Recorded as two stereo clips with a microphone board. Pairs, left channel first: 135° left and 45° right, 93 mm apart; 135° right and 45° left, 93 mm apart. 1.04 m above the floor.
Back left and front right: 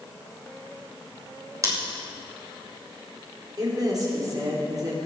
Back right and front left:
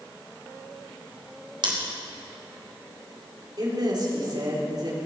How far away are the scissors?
About 3 m.